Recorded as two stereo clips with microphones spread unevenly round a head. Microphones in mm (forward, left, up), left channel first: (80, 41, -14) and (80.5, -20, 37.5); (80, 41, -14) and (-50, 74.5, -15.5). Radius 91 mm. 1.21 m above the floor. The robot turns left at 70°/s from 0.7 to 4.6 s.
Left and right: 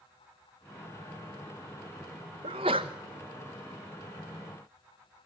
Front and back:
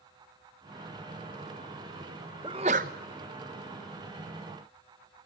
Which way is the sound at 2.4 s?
125° right.